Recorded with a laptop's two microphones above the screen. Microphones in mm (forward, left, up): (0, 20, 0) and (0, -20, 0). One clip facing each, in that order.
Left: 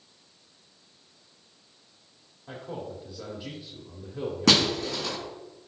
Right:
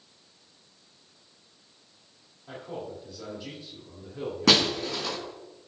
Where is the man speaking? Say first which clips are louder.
Even; 10° left (ahead or behind), 2 m.